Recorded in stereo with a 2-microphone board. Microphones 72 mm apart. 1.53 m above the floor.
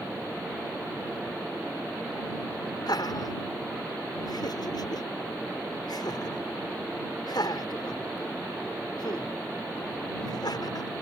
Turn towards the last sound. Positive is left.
turn(degrees=70)  # may be behind; listen again after turning